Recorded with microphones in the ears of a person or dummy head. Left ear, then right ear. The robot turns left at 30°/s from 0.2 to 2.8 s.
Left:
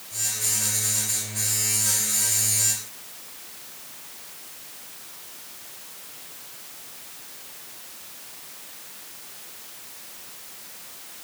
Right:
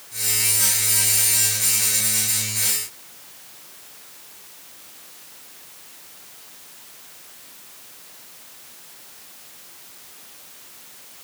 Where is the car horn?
I don't hear a car horn.